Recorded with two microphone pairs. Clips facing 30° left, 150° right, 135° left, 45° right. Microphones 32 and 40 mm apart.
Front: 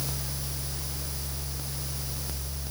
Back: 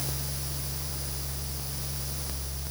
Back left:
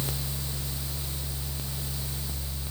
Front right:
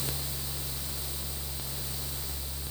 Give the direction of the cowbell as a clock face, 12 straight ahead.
No cowbell in this recording.